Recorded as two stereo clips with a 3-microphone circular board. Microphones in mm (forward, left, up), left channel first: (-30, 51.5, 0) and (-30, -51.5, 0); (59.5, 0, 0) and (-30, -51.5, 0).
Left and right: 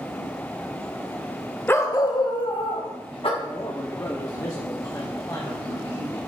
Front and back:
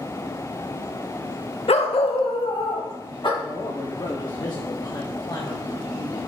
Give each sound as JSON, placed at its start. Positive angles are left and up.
{"t": 1.7, "sound": "a dog barking", "azimuth_deg": 20, "distance_m": 0.7}
{"t": 3.4, "sound": "a man speaking", "azimuth_deg": 50, "distance_m": 0.9}